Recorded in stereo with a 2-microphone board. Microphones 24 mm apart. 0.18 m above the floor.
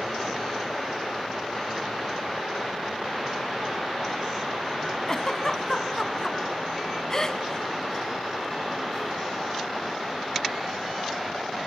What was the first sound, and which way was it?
A giggle, 25° left (ahead or behind).